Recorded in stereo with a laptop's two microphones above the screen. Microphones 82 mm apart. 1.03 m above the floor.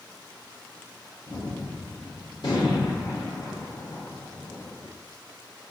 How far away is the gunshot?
About 2.5 m.